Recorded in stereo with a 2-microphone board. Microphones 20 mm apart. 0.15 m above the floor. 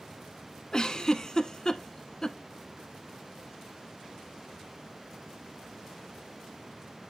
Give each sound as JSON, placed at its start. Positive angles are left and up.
{"t": 0.7, "sound": "a giggle", "side_deg": 35, "distance_m": 1.0}